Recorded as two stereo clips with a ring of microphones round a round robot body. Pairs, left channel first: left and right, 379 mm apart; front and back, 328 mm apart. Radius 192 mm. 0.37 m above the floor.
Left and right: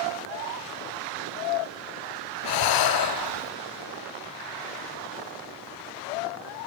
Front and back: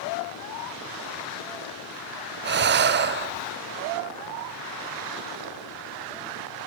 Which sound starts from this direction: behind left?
Breathing, at 2.4 s.